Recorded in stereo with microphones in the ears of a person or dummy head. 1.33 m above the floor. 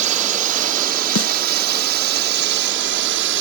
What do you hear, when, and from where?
0.0 s a drone: 45° right (ahead or behind); by 3.4 s 65° right (ahead or behind)
1.1 s a snare drum: 65° left (ahead or behind)